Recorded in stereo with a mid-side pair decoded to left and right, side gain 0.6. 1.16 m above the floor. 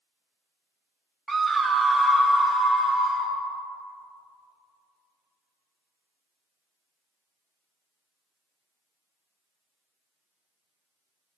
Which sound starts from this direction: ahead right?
A scream, at 1.3 s.